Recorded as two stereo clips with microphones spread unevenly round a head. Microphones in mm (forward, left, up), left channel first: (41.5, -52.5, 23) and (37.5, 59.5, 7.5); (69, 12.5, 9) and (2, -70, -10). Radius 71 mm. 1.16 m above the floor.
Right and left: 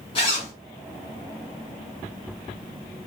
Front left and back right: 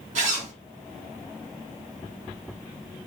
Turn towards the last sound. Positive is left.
turn(degrees=-145)